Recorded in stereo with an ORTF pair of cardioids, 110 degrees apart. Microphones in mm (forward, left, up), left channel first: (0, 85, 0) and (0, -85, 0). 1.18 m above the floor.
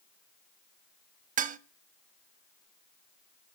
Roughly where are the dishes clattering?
Ahead right.